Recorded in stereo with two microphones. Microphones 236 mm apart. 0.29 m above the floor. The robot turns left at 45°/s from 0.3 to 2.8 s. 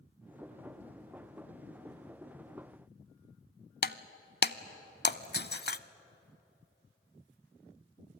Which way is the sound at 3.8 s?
45° left (ahead or behind).